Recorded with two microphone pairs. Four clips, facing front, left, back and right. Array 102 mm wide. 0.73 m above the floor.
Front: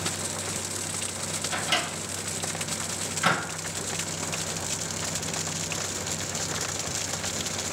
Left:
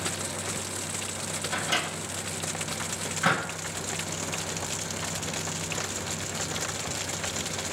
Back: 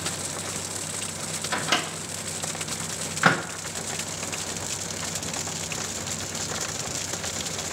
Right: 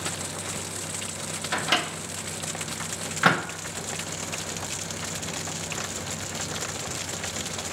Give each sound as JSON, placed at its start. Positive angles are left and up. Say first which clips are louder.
{"t": 1.5, "sound": "a microwave", "louder": "right 4 dB, back 3 dB", "azimuth_deg": -140, "distance_m": 0.7}